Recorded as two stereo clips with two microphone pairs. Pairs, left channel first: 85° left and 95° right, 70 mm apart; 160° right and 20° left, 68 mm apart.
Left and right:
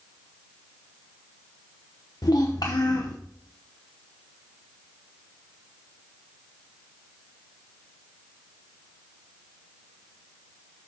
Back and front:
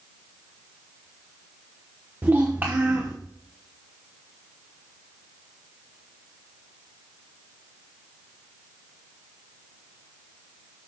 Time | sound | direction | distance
2.2 | a child speaking | 75° left | 0.8 m